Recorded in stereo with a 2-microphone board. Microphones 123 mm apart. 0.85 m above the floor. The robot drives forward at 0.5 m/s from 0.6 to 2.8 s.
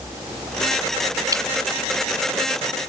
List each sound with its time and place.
1.3 s dripping: 30° right (ahead or behind)